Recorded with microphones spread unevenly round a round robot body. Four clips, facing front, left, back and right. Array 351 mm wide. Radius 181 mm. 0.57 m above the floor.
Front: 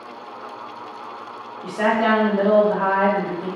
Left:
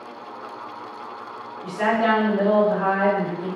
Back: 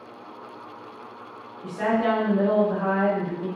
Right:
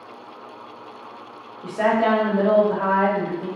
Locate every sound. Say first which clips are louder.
1.6 s a woman speaking: right 1 dB, front 4 dB; 60° right, 1.2 m